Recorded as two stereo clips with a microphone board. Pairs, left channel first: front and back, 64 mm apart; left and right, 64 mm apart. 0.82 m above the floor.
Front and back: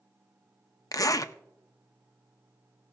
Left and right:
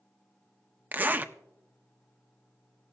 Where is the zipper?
30° right, 0.5 m.